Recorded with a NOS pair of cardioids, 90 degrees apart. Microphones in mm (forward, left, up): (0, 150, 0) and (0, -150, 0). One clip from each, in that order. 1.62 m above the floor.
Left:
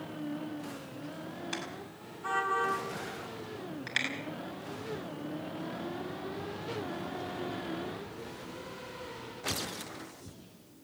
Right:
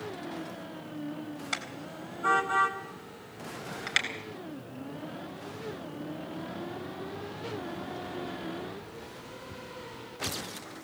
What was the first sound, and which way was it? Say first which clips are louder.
A car horn: right 7 dB; 50° right.